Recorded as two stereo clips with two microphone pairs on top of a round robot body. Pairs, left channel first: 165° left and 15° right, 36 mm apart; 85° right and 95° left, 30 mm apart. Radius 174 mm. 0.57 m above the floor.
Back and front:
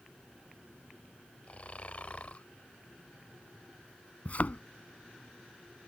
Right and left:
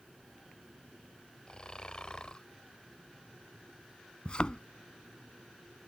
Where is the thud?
145° right.